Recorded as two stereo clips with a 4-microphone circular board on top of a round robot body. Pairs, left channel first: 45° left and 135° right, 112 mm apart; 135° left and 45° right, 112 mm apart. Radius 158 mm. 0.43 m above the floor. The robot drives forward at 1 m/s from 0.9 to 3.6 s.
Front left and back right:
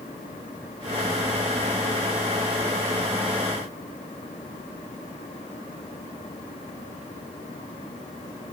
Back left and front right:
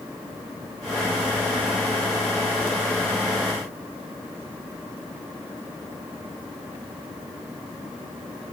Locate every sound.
Only background noise.